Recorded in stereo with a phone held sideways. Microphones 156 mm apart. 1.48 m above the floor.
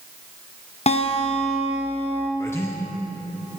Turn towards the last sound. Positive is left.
turn(degrees=15)  # may be behind; listen again after turning